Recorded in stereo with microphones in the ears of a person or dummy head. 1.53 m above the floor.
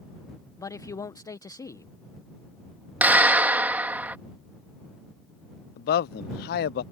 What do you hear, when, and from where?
0.6 s a man speaking: 20° left (ahead or behind)
3.0 s a clap: 10° right (ahead or behind)
5.8 s a man speaking: 60° left (ahead or behind)